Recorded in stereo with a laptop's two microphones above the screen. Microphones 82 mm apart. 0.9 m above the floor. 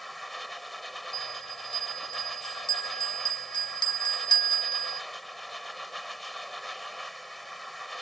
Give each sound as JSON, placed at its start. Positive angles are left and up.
{"t": 0.0, "sound": "a machine running", "side_deg": 0}
{"t": 1.1, "sound": "a bell", "side_deg": 70}